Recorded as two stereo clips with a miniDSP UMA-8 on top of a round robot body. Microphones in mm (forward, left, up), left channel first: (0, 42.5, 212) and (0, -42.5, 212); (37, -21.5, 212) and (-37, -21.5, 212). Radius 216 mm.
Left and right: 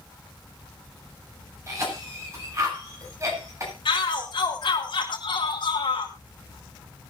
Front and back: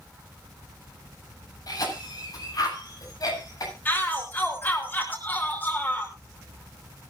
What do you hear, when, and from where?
1.7 s a cough: 35° right, 9.5 m
3.9 s a shout: 65° left, 6 m